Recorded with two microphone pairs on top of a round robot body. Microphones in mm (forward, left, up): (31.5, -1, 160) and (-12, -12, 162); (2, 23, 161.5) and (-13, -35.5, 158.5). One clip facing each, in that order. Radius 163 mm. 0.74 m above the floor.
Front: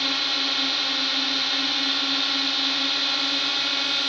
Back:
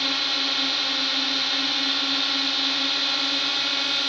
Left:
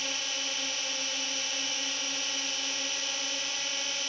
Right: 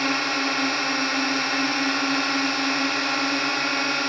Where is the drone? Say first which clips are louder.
Even, right 13 dB; 75° right.